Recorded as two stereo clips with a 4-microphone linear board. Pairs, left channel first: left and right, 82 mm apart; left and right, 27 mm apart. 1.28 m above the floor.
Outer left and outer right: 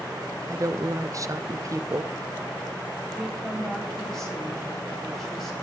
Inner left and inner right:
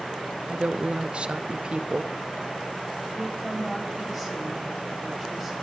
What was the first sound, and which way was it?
A woman speaking, 40° right (ahead or behind).